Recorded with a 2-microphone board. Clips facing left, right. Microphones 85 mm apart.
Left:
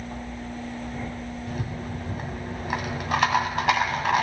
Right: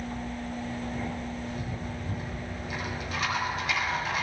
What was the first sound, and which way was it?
A rattle, 75° left (ahead or behind).